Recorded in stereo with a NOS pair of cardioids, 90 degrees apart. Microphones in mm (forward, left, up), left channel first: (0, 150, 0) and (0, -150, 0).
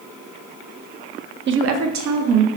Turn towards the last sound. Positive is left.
turn(degrees=-75)